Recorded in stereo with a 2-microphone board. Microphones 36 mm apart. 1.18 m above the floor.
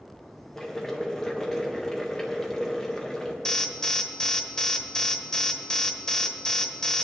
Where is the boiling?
10° left (ahead or behind), 1.6 m.